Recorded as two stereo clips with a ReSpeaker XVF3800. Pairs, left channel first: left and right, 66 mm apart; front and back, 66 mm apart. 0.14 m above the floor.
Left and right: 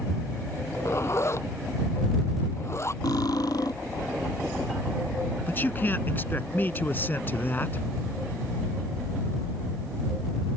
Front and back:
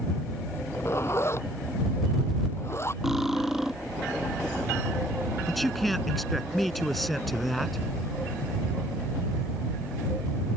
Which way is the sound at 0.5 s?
45° left.